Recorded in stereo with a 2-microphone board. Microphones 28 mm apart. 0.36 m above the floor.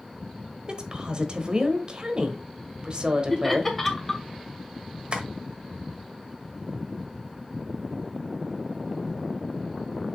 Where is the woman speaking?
35° right (ahead or behind), 1.2 m.